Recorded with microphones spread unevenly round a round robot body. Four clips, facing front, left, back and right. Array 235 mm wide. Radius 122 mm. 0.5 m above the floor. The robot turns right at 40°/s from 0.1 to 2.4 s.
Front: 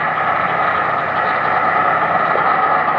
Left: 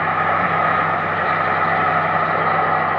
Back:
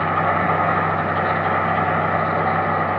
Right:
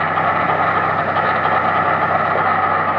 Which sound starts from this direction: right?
An insect, at 0.0 s.